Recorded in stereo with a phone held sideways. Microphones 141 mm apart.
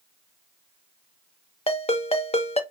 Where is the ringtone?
45° left (ahead or behind), 0.5 m.